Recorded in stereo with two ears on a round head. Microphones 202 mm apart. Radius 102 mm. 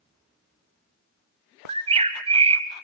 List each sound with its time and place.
1.7 s a bird: 25° right (ahead or behind), 1.5 m